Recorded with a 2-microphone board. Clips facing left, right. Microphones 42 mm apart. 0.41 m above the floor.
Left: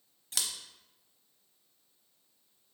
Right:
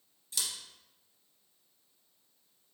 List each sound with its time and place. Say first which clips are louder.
0.3 s scissors: left 1 dB; 85° left, 0.6 m